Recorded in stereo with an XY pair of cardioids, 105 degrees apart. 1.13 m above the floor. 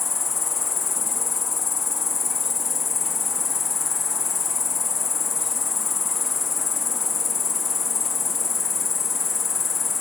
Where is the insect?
40° left, 1.7 m.